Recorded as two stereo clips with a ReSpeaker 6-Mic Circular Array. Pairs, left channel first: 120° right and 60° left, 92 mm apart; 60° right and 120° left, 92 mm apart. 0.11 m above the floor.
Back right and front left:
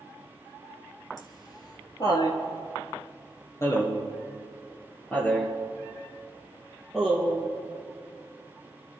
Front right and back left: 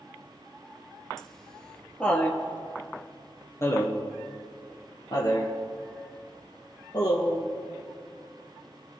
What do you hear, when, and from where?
1.2 s laughter: 145° right, 2.5 m; by 7.5 s 30° right, 3.5 m